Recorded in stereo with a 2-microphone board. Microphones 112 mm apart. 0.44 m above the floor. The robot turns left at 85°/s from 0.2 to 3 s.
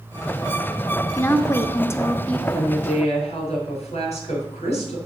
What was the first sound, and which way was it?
A woman speaking, 15° left (ahead or behind).